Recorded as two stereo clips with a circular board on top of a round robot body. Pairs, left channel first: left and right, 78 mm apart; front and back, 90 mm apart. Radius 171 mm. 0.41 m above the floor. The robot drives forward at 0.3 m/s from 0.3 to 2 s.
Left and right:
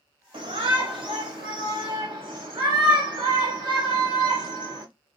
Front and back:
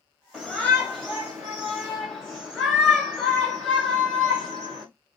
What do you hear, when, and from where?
0.3 s a shout: 85° right, 2 m; by 4.8 s 100° right, 2 m